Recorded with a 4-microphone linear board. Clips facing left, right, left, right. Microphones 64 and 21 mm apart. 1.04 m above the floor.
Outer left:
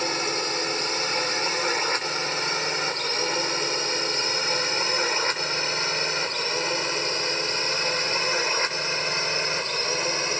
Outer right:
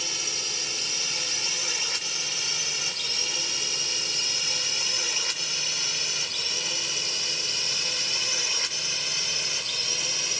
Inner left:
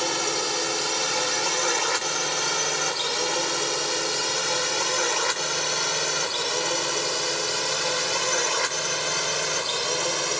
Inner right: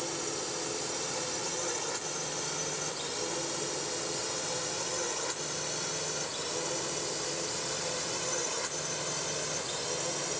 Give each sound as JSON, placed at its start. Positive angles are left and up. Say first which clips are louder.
{"t": 0.0, "sound": "a drone", "louder": "outer left 10 dB, inner left 10 dB", "side_deg": 45}